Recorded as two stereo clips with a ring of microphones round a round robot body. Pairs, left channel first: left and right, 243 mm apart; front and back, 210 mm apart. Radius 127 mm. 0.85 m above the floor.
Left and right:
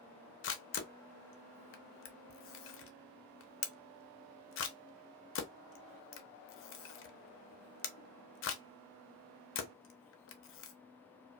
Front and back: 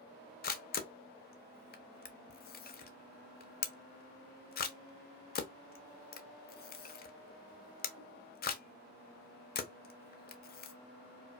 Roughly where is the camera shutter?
Ahead left.